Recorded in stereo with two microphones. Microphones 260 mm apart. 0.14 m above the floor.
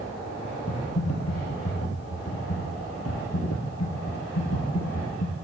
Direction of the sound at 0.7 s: 70° left (ahead or behind).